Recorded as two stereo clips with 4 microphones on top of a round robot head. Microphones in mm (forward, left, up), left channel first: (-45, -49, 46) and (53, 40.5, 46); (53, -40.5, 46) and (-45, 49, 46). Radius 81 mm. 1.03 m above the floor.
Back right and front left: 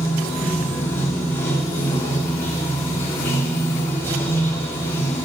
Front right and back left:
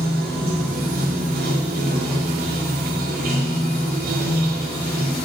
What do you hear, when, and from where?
0.0 s running water: 150° left, 1.8 m